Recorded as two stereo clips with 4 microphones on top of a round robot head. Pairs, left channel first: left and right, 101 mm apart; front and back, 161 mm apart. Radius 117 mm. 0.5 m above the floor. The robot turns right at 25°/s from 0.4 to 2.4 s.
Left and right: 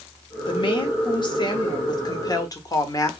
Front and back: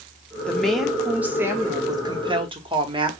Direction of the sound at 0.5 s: 80° left.